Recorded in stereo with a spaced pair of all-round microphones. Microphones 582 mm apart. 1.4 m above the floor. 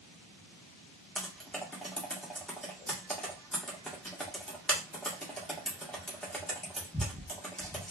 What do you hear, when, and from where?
1.1 s typing on a keyboard: centre (ahead or behind), 0.9 m